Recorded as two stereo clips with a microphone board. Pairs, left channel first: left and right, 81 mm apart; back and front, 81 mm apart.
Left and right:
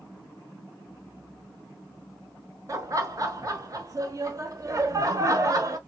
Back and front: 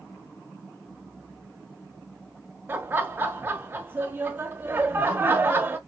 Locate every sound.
2.7 s laughter: 60° right, 1.2 m